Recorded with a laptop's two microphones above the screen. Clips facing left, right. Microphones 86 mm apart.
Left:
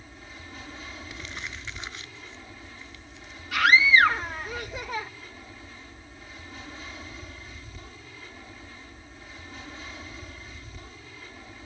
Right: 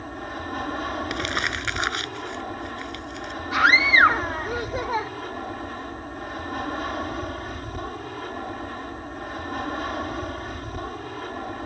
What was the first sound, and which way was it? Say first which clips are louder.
An aircraft: right 14 dB; 60° right (ahead or behind).